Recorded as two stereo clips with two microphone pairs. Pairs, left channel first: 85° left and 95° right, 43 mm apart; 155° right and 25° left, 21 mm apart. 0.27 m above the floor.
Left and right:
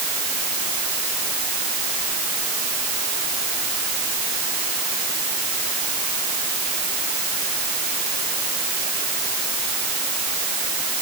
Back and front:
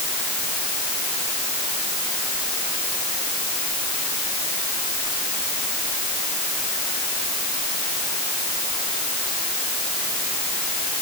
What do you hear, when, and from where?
Only background noise.